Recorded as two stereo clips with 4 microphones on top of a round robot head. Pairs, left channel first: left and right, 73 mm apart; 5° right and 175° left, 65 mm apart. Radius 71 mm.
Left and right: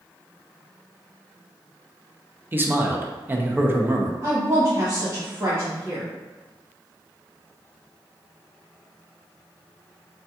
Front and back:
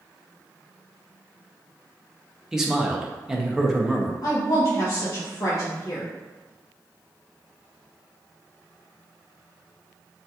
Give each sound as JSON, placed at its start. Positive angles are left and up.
{"t": 2.5, "sound": "a man speaking", "azimuth_deg": -110, "distance_m": 0.6}
{"t": 4.2, "sound": "a woman speaking", "azimuth_deg": -35, "distance_m": 0.7}